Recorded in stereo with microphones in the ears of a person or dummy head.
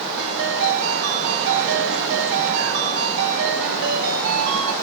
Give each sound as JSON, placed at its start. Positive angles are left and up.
{"t": 0.2, "sound": "a ringtone", "side_deg": -70, "distance_m": 1.6}